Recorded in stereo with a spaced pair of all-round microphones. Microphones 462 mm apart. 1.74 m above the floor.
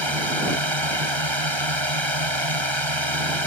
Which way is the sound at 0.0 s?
85° right.